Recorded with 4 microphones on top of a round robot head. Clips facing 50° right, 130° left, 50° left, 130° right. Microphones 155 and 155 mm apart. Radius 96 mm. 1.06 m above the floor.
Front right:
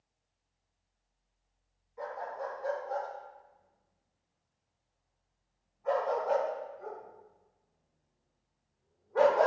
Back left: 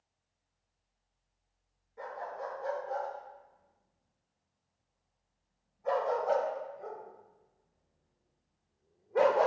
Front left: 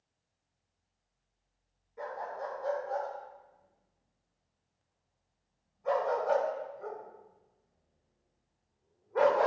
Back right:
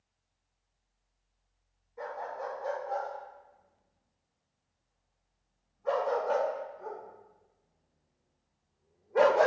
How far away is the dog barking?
About 5 m.